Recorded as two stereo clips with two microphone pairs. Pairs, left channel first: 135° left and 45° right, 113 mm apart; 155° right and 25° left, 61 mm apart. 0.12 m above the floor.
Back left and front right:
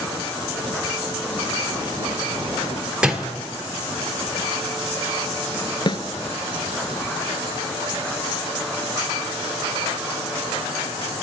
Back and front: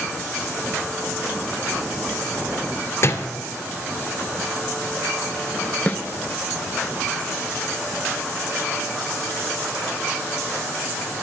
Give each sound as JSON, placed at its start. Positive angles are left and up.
{"t": 3.0, "sound": "a door slam", "azimuth_deg": -130, "distance_m": 1.5}
{"t": 5.9, "sound": "a snare drum", "azimuth_deg": 155, "distance_m": 0.9}